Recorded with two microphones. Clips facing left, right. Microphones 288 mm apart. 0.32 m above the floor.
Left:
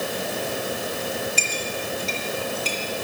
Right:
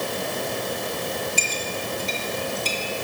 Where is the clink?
15° right (ahead or behind), 5.5 m.